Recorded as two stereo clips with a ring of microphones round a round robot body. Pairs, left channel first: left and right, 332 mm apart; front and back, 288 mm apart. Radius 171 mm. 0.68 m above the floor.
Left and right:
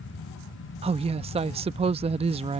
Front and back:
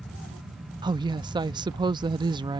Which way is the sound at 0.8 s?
130° right.